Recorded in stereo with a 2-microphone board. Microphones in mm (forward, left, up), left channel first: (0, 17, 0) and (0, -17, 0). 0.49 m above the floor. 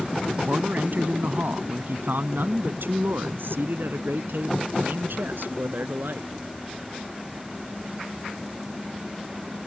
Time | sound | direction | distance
0.3 | a man speaking | 55° right (ahead or behind) | ?